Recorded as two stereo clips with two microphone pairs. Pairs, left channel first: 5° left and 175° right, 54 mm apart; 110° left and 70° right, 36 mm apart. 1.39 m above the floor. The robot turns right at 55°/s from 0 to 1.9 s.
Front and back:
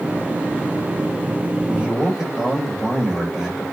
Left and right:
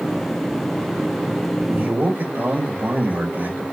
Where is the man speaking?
105° right, 6 m; by 3.6 s 95° right, 6 m.